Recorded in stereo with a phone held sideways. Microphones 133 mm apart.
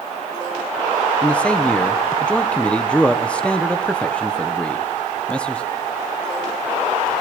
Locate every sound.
1.2 s a man speaking: 10° left (ahead or behind), 1.2 m